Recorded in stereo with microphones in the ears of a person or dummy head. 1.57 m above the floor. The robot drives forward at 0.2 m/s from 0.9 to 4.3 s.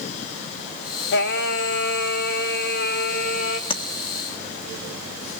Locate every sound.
1.1 s singing: 65° left (ahead or behind), 1.2 m; by 3.6 s 55° left (ahead or behind), 1.3 m
3.7 s tapping: 25° left (ahead or behind), 1.1 m